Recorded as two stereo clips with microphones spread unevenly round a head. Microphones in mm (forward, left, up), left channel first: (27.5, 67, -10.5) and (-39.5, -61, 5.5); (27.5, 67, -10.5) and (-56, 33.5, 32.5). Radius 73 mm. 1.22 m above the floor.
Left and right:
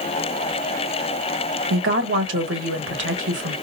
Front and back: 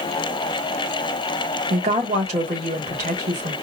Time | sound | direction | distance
1.7 | a woman speaking | 120° right | 1.6 m